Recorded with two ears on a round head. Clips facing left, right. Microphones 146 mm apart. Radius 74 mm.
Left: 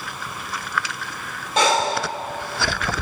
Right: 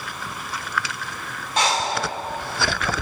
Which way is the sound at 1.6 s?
80° left.